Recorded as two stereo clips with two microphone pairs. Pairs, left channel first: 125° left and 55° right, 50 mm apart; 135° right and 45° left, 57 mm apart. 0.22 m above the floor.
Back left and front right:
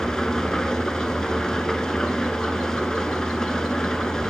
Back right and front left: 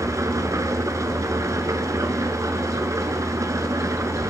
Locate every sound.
0.0 s an engine running: 55° left, 1.4 m